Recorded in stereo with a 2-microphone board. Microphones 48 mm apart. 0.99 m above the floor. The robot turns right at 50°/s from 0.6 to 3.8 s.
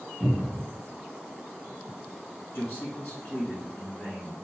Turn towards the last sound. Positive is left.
turn(degrees=170)